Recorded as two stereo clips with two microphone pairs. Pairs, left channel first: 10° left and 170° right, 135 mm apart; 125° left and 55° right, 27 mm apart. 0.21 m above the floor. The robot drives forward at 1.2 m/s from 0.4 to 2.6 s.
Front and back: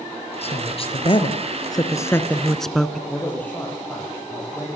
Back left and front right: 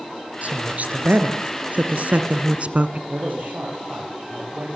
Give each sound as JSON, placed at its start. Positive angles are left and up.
{"t": 0.4, "sound": "a woman speaking", "azimuth_deg": -30, "distance_m": 3.5}
{"t": 3.1, "sound": "a man speaking", "azimuth_deg": -70, "distance_m": 6.5}